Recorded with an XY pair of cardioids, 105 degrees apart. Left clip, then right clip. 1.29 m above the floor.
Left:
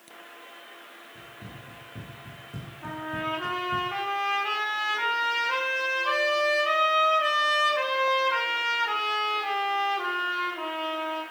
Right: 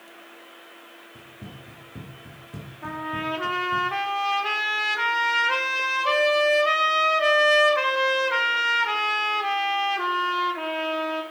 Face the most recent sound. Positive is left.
turn(degrees=-40)